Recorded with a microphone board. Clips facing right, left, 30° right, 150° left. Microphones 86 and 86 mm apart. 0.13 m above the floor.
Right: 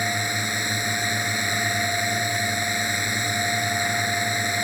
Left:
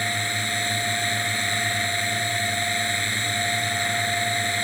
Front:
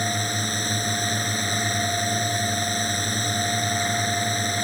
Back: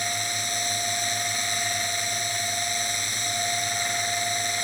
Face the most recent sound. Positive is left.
turn(degrees=-25)